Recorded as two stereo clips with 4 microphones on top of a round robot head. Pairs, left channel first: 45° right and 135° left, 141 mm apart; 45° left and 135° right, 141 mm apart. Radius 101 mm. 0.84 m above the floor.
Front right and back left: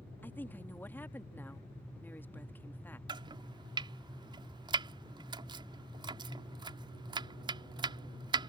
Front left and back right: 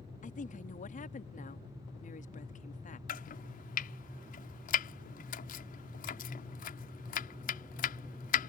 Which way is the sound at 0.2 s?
30° left.